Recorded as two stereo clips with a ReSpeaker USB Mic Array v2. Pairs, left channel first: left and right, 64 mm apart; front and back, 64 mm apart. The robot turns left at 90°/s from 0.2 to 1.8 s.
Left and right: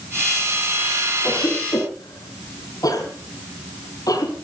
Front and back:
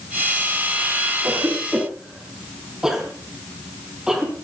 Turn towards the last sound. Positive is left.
turn(degrees=100)